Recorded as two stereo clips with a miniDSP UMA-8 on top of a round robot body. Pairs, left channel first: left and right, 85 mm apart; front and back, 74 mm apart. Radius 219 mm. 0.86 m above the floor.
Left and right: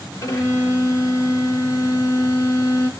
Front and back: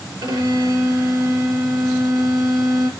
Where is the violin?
145° left, 1.2 m.